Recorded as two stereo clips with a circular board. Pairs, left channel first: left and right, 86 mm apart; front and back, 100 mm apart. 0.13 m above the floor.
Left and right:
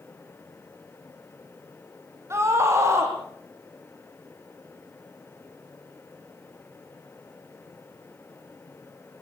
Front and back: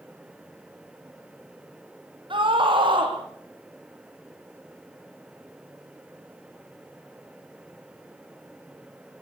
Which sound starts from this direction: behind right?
A scream, at 2.3 s.